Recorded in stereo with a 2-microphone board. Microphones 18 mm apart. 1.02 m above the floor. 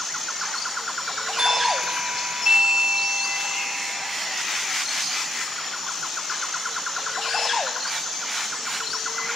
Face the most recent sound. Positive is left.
turn(degrees=-65)  # may be behind; listen again after turning